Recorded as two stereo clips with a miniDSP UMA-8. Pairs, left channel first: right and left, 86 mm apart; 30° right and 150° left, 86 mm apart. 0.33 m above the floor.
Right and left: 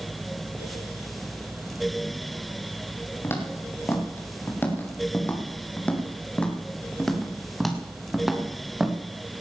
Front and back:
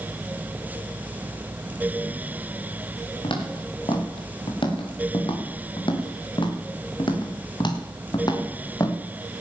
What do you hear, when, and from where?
3.2 s footsteps: 30° right, 5.5 m; by 9.0 s 10° left, 3.5 m